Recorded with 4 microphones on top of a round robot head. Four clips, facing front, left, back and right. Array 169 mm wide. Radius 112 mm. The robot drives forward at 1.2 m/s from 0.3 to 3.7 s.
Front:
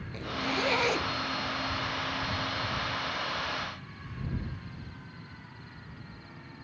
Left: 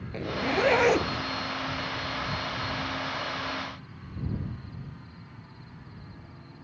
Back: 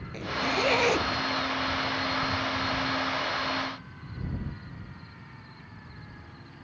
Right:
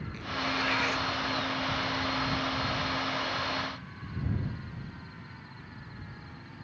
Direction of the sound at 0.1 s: 100° left.